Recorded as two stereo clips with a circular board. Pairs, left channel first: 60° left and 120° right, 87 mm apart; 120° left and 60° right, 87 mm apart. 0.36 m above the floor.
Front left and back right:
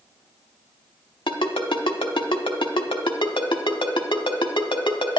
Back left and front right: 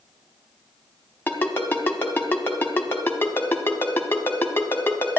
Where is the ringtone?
55° left, 0.9 m.